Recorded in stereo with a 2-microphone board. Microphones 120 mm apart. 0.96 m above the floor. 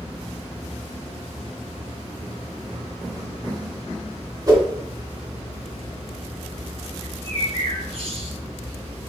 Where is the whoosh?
35° right (ahead or behind), 1.6 m.